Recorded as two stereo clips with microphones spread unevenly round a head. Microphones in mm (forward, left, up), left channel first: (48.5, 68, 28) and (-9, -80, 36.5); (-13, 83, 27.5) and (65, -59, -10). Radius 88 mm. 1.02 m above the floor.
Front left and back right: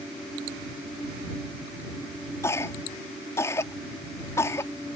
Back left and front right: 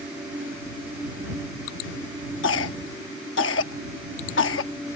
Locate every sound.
2.4 s a cough: 145° left